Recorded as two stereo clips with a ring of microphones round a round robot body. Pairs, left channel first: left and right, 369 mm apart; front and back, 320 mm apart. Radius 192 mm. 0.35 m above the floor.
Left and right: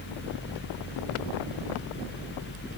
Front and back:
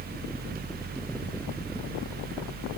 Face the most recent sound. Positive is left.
No sound to turn to.